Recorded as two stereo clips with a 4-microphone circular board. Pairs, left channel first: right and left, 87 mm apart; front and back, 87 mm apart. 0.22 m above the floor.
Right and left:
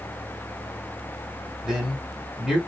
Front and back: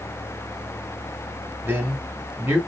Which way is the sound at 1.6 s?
165° left.